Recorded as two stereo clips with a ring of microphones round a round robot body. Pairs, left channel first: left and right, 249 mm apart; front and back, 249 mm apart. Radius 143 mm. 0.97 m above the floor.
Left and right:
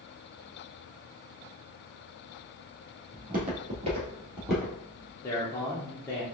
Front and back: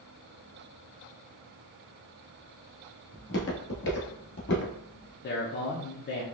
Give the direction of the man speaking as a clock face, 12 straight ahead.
11 o'clock.